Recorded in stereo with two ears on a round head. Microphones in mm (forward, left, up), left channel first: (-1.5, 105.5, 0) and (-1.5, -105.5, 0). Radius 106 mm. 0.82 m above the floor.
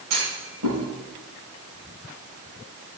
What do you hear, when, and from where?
0.1 s a clunk: 80° right, 2.5 m